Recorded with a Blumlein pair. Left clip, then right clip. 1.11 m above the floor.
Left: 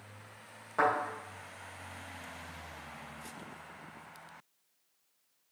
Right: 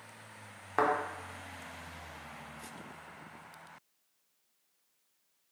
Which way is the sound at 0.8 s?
30° right.